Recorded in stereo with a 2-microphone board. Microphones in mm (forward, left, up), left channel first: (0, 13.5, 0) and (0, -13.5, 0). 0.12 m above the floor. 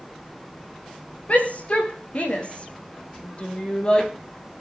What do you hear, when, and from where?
1.3 s a shout: 50° left (ahead or behind), 7 m; by 4.1 s 30° left (ahead or behind), 4 m